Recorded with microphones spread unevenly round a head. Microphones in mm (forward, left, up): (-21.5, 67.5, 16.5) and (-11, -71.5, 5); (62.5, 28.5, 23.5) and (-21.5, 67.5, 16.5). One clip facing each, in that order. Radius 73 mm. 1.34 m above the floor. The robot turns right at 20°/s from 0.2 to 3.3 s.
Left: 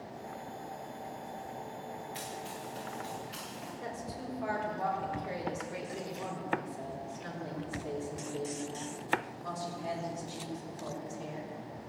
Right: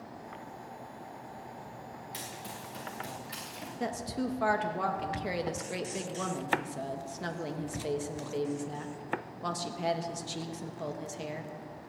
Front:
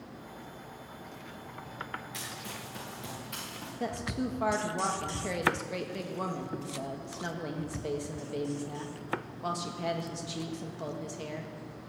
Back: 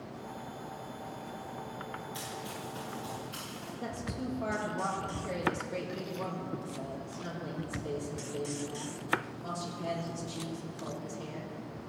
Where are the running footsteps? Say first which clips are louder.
Left 2 dB, back 2 dB; 80° right, 6.5 m; by 3.7 s 45° right, 6.5 m.